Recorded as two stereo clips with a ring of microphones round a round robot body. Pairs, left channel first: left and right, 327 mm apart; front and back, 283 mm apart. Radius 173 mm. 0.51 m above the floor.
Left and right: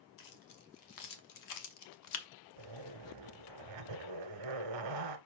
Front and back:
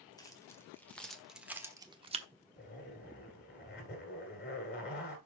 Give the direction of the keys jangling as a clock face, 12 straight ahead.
9 o'clock.